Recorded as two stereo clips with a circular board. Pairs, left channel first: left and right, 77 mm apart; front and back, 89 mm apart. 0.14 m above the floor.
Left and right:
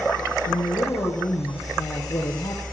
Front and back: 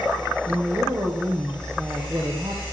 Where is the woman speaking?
125° left, 2.5 m.